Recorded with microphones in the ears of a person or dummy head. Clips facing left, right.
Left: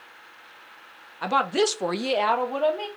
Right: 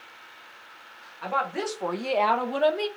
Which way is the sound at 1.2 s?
55° left (ahead or behind).